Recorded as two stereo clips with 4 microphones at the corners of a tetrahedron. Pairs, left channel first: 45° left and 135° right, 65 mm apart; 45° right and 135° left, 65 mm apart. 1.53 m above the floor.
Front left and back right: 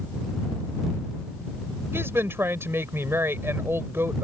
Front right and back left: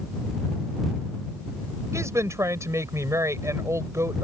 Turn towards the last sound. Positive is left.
turn(degrees=175)